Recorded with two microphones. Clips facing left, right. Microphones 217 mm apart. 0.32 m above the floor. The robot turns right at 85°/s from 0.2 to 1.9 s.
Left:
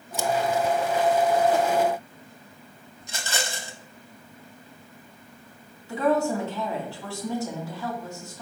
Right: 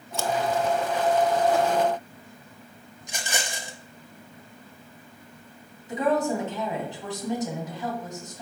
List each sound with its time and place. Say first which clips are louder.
0.1 s scissors: left 1 dB; 20° left (ahead or behind), 0.5 m; by 0.3 s 25° left (ahead or behind), 0.5 m
3.0 s a rattle: left 1 dB; 15° right (ahead or behind), 0.9 m
5.9 s a woman speaking: left 1 dB; 20° right (ahead or behind), 2.5 m